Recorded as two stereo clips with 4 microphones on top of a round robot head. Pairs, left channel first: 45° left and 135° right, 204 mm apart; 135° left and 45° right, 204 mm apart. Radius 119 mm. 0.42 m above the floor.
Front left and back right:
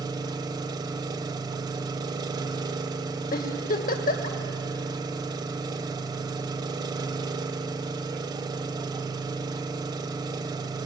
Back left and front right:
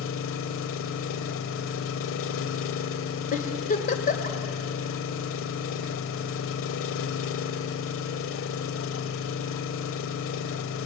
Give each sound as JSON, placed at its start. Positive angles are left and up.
{"t": 0.0, "sound": "an engine running", "azimuth_deg": 155, "distance_m": 0.7}
{"t": 3.3, "sound": "a giggle", "azimuth_deg": 85, "distance_m": 2.0}